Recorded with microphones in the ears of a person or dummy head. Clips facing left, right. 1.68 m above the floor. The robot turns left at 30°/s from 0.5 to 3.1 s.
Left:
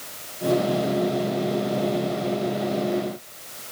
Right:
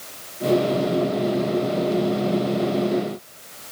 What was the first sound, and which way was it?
Only background noise.